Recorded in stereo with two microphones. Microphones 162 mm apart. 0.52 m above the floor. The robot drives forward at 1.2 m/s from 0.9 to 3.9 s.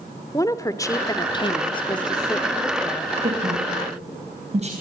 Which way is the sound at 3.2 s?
50° right (ahead or behind).